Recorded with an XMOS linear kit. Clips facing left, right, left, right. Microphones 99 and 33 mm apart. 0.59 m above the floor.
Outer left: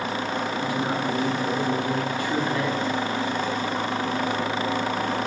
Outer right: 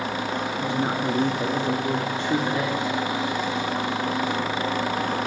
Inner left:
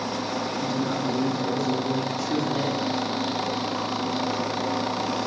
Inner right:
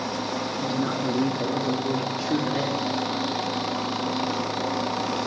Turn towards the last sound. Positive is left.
turn(degrees=-20)  # may be behind; listen again after turning